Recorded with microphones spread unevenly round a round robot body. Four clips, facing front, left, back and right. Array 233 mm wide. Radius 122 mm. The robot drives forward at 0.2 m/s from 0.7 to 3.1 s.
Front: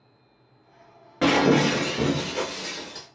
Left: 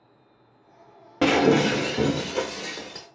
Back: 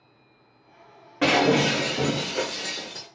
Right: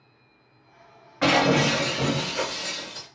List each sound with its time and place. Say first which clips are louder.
1.2 s breaking glass: left 2 dB, front 1 dB; 90° left, 0.8 m; by 3.1 s 115° left, 0.8 m